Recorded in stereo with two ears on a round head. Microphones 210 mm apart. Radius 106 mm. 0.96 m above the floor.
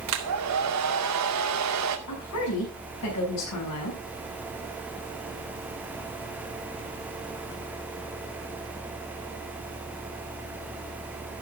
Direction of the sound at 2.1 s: 75° left (ahead or behind).